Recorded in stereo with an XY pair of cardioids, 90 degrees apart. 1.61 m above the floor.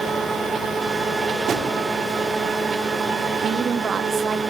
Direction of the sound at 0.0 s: 55° right.